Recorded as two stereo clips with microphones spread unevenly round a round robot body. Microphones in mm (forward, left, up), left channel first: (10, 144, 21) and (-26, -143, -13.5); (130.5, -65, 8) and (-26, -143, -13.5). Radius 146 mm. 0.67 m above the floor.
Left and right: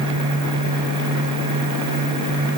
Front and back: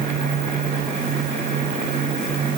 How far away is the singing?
I don't hear singing.